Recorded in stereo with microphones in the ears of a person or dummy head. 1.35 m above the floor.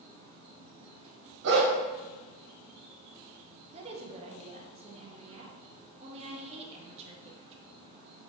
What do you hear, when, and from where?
0.0 s an insect: 35° right (ahead or behind), 1.1 m
1.4 s a dog barking: 65° right (ahead or behind), 2.5 m
3.7 s a woman speaking: 35° right (ahead or behind), 1.5 m